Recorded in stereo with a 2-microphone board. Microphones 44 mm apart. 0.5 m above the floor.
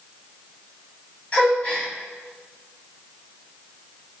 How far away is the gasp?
About 2.5 m.